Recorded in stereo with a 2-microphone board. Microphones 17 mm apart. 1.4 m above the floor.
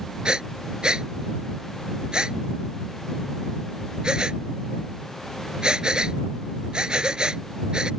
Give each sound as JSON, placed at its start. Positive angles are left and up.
{"t": 0.2, "sound": "breathing", "side_deg": -60}